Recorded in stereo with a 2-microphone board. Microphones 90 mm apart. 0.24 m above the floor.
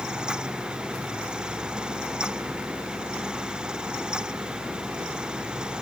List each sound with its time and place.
Only background noise.